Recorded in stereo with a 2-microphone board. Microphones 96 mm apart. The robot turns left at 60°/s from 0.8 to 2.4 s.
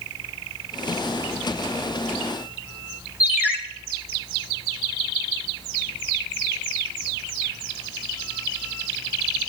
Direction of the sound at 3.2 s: 20° right (ahead or behind).